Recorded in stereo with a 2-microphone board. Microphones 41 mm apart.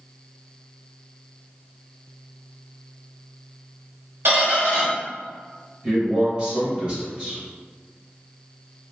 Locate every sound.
4.2 s a squeak: 70° right (ahead or behind), 1.2 m
5.8 s a man speaking: 25° right (ahead or behind), 1.3 m